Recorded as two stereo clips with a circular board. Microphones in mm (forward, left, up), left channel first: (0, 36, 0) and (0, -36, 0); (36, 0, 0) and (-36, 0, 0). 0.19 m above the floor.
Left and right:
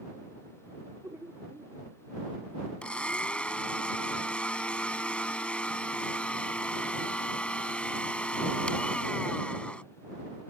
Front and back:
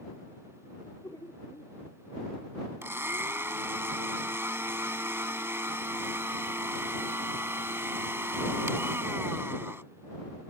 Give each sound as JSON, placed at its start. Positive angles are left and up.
{"t": 0.8, "sound": "laughter", "azimuth_deg": -40}
{"t": 2.8, "sound": "a blender", "azimuth_deg": 155}